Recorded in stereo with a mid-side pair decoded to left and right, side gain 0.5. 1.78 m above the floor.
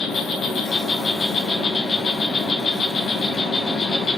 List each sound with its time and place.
0.0 s an insect: 45° left, 1.8 m